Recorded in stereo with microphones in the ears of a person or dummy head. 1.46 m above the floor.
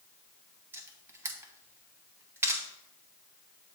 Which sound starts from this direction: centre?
A camera shutter, at 0.7 s.